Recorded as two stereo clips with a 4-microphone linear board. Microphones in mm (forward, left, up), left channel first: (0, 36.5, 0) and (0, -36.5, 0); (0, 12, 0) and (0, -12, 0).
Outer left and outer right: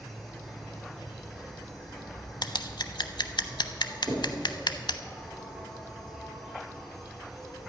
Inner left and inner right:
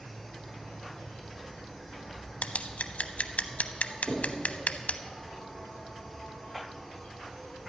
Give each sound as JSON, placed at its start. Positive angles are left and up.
{"t": 0.0, "sound": "an insect", "side_deg": -5, "distance_m": 3.0}
{"t": 2.4, "sound": "scissors", "side_deg": 80, "distance_m": 0.5}
{"t": 4.1, "sound": "knocking", "side_deg": -85, "distance_m": 4.5}